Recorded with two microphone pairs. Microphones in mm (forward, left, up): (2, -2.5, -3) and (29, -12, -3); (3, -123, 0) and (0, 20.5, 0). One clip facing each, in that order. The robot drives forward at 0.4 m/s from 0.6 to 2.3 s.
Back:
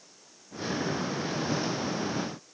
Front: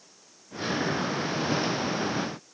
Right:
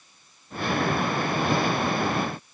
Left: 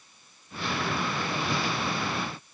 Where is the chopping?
No chopping in this recording.